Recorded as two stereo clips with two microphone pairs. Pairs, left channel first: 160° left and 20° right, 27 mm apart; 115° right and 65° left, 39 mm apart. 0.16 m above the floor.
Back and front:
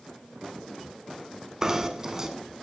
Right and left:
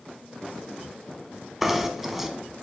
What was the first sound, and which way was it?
Knocking, 5° right.